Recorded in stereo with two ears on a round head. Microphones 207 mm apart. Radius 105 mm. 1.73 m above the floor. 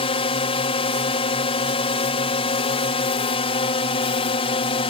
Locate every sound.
0.0 s a drone: 25° left (ahead or behind)